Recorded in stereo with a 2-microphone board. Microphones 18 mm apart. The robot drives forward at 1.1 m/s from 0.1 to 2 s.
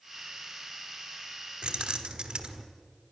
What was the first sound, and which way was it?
Keys jangling, 65° right (ahead or behind).